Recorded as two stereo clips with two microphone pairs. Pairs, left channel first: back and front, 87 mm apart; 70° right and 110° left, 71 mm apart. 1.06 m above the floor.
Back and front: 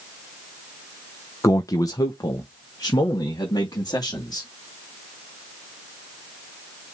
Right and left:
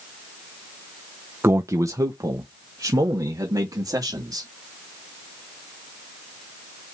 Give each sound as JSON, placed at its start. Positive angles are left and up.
{"t": 1.4, "sound": "a man speaking", "azimuth_deg": 145, "distance_m": 0.6}